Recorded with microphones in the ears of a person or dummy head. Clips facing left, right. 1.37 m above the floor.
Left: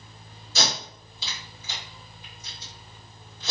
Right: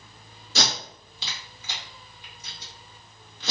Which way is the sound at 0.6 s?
60° right (ahead or behind).